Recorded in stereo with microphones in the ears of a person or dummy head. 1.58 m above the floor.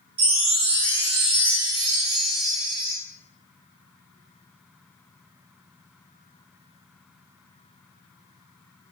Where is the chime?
30° right (ahead or behind), 0.8 m.